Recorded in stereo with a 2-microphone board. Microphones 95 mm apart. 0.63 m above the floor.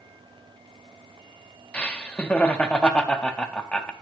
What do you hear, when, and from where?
1.7 s laughter: 10° left (ahead or behind), 0.6 m